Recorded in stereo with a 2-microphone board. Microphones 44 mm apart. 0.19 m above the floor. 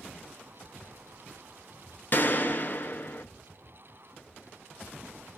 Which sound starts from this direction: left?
A gunshot, at 2.1 s.